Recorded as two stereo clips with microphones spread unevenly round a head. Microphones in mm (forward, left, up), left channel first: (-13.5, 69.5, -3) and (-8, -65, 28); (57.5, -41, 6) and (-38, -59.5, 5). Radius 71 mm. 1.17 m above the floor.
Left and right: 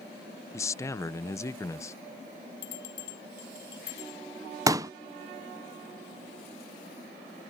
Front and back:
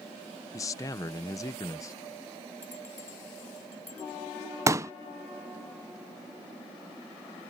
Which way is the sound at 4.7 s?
155° right.